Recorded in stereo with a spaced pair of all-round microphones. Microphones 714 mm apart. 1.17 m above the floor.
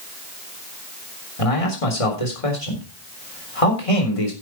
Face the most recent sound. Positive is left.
turn(degrees=50)  # may be behind; listen again after turning